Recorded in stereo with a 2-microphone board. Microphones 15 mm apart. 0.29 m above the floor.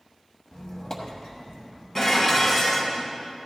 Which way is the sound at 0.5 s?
50° left (ahead or behind).